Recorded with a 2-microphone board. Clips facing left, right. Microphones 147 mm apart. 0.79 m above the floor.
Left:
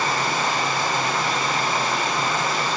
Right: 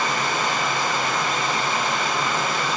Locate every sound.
0.0 s running water: 35° left (ahead or behind), 3.5 m